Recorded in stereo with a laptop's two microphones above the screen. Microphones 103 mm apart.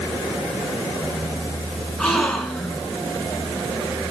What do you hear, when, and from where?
2.0 s a gasp: 5° left (ahead or behind), 6 m